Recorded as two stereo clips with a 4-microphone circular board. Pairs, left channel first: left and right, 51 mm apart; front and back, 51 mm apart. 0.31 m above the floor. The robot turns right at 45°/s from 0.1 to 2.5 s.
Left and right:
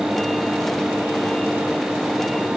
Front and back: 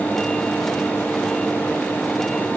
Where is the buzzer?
No buzzer in this recording.